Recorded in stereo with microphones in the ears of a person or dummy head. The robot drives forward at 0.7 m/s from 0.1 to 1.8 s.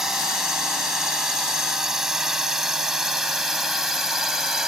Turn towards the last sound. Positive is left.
turn(degrees=0)  # may be behind; listen again after turning